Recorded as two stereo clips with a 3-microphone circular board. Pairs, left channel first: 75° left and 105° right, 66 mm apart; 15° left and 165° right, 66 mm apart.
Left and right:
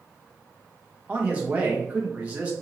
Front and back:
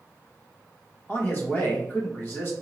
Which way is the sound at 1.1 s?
40° right.